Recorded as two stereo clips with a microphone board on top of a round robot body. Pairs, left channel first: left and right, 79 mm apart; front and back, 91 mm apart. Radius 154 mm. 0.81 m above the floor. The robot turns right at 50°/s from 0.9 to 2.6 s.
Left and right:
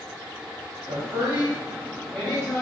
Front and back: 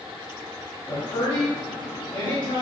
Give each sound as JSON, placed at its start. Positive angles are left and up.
{"t": 0.9, "sound": "a woman speaking", "azimuth_deg": -60, "distance_m": 1.9}